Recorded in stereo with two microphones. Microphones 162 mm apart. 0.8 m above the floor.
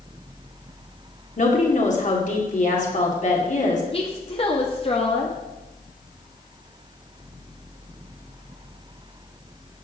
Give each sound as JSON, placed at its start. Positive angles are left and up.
{"t": 1.4, "sound": "a woman speaking", "side_deg": 50, "distance_m": 2.5}
{"t": 3.9, "sound": "a woman speaking", "side_deg": 35, "distance_m": 1.4}